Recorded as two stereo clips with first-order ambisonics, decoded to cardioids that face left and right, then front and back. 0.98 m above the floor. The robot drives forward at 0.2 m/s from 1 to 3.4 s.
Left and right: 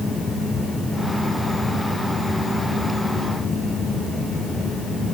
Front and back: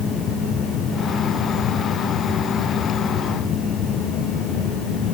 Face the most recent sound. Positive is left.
No sound to turn to.